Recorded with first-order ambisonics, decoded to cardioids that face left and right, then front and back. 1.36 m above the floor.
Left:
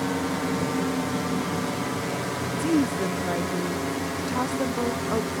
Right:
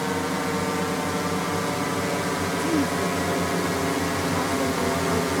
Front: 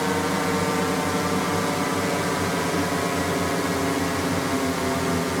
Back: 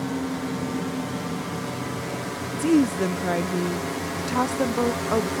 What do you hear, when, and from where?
0.0 s a drone: 20° right; by 5.4 s 65° right
2.6 s a woman speaking: 170° left